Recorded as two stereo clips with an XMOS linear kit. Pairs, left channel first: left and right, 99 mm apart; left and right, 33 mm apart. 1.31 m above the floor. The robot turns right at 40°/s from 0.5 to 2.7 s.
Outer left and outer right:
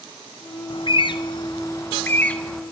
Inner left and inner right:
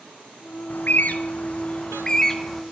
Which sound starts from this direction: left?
A bird, at 0.7 s.